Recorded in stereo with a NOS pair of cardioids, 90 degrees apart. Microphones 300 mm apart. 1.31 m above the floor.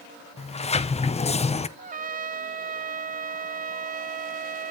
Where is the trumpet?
30° right, 0.7 m.